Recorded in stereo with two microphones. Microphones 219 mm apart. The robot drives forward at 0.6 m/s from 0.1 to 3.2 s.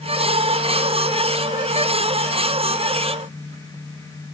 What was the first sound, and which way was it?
Only background noise.